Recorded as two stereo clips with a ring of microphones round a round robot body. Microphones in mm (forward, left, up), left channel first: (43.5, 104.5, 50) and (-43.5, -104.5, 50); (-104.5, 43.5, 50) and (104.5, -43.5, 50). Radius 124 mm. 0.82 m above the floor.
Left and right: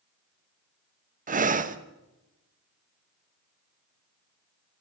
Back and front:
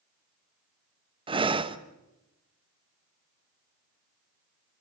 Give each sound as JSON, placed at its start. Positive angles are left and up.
{"t": 1.3, "sound": "breathing", "azimuth_deg": -80, "distance_m": 1.2}